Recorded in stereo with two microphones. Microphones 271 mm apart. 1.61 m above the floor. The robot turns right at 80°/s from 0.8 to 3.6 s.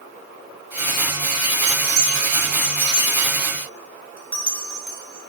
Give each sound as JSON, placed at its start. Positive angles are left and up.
{"t": 1.7, "sound": "a bell", "side_deg": -60, "distance_m": 3.0}